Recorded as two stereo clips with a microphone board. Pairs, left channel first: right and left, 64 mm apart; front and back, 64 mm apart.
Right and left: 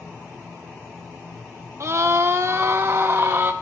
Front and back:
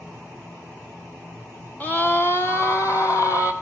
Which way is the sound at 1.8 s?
60° left.